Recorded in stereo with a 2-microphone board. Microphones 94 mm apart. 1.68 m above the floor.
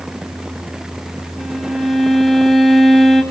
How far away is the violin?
About 1.4 m.